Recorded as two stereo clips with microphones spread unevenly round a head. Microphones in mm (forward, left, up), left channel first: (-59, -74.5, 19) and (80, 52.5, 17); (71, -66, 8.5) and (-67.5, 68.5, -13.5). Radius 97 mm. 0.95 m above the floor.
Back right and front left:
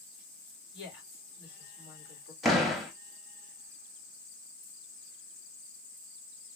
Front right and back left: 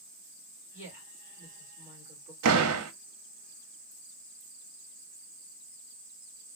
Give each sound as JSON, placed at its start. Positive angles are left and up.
{"t": 0.7, "sound": "a woman speaking", "azimuth_deg": -110, "distance_m": 3.0}
{"t": 2.4, "sound": "a door slam", "azimuth_deg": 135, "distance_m": 0.7}